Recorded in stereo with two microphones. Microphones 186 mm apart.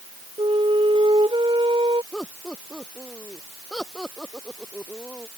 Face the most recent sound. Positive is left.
turn(degrees=0)  # may be behind; listen again after turning